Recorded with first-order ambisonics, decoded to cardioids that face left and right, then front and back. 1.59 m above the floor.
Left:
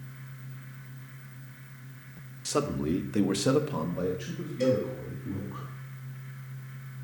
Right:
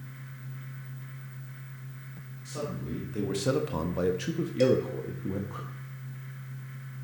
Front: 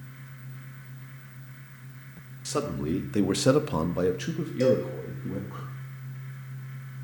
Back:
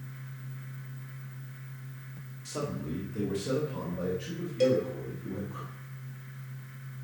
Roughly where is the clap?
No clap in this recording.